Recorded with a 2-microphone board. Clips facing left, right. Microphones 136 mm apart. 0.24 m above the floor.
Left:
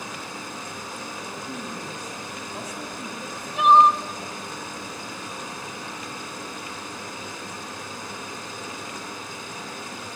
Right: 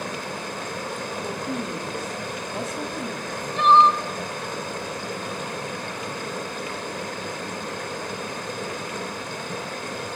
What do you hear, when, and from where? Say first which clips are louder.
0.0 s running water: right 5 dB; 70° right (ahead or behind), 3 m
1.2 s a woman speaking: right 7 dB; 30° right (ahead or behind), 2 m
3.2 s crying: left 1 dB; 5° left (ahead or behind), 1.2 m